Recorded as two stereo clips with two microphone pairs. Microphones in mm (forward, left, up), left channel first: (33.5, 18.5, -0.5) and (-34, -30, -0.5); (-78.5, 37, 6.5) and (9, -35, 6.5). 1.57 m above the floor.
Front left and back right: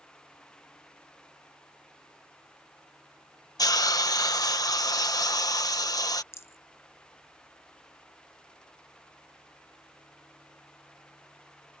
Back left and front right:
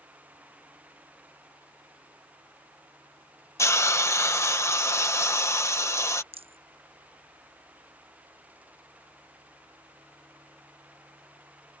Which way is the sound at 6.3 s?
20° right.